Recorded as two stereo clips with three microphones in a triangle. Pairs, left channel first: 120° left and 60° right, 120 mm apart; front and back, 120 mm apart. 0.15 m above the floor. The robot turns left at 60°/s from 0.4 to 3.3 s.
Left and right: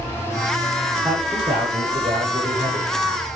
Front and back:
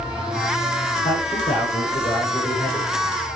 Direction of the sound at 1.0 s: 20° left.